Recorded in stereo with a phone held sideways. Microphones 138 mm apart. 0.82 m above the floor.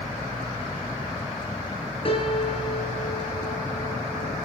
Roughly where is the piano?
Left.